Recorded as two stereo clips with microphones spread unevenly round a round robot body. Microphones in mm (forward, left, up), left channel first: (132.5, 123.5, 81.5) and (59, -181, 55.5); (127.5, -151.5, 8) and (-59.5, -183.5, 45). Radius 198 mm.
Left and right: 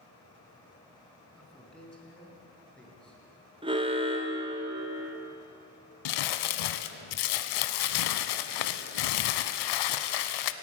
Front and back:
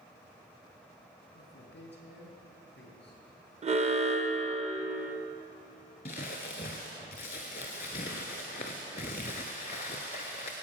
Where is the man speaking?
10° right, 3.5 m.